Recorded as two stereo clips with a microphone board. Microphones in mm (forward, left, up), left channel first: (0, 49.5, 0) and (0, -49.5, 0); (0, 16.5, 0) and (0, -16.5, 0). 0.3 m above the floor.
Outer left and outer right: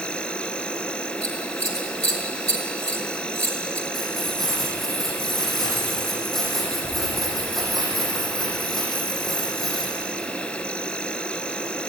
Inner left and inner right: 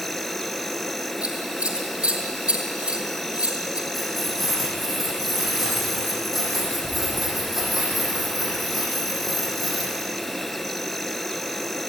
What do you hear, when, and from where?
0.0 s an insect: 10° left (ahead or behind), 1.0 m
1.2 s scissors: 30° right (ahead or behind), 4.5 m
3.9 s keys jangling: 5° left (ahead or behind), 9 m